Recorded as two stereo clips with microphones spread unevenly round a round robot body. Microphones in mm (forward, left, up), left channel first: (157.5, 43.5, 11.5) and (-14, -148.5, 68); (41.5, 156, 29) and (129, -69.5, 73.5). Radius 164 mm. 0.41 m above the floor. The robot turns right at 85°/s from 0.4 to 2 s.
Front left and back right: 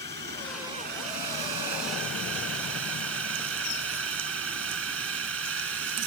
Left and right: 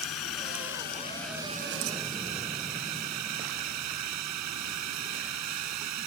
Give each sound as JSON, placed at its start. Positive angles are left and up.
{"t": 0.0, "sound": "a drone", "azimuth_deg": 125}